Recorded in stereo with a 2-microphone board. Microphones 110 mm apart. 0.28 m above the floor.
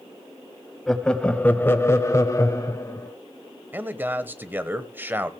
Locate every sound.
0.9 s laughter: 5° left (ahead or behind), 1.5 m; by 3.1 s 30° left (ahead or behind), 1.7 m
3.7 s a man speaking: 20° right (ahead or behind), 0.9 m